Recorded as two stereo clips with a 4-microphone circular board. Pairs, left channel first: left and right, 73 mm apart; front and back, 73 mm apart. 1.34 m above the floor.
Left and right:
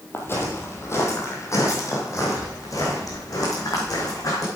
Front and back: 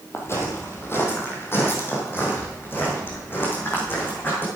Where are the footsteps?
40° left, 2 m; by 4.5 s 60° left, 4 m.